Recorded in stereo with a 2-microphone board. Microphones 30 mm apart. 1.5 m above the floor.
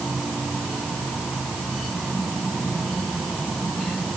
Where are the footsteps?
No footsteps in this recording.